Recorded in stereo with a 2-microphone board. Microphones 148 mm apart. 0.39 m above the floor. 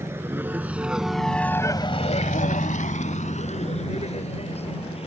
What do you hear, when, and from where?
0.0 s a vehicle: 20° right (ahead or behind); by 5.1 s 45° left (ahead or behind)